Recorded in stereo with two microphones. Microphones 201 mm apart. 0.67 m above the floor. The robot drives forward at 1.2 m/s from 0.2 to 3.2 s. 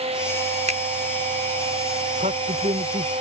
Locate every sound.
0.7 s a finger snap: 35° right (ahead or behind); by 0.8 s 40° right (ahead or behind)
2.2 s a man speaking: 40° right (ahead or behind); by 3.1 s 30° right (ahead or behind)